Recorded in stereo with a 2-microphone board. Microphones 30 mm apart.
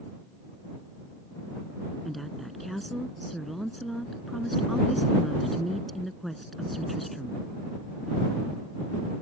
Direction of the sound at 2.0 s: 5° left (ahead or behind).